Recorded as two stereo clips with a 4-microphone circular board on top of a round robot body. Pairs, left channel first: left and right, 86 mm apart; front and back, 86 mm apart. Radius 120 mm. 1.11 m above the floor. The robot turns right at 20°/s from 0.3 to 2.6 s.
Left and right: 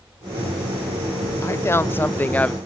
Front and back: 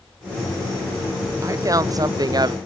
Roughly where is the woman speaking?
Behind left.